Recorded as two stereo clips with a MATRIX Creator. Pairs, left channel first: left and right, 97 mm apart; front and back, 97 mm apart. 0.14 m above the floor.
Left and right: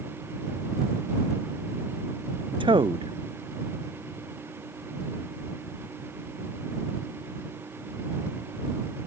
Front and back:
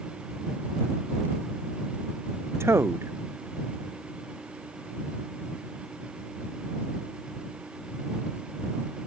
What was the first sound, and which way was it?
A man speaking, 120° right.